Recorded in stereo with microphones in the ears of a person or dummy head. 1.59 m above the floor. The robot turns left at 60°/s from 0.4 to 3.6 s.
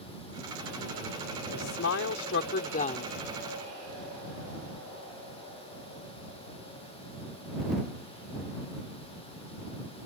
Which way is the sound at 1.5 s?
135° left.